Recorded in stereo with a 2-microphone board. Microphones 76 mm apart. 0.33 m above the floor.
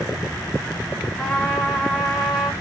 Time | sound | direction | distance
1.2 | a trumpet | 5° left (ahead or behind) | 1.4 m